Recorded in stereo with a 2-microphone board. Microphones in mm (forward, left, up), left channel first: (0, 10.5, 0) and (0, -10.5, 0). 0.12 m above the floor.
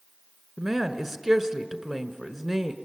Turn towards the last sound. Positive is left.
turn(degrees=-5)  # may be behind; listen again after turning